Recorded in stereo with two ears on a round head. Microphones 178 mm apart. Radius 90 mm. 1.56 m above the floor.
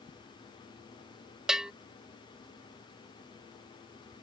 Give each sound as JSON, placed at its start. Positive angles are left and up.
{"t": 1.5, "sound": "a bell", "side_deg": -5}